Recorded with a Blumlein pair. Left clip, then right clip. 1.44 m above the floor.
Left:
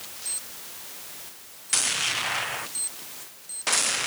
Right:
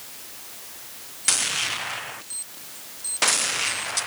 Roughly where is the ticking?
No ticking in this recording.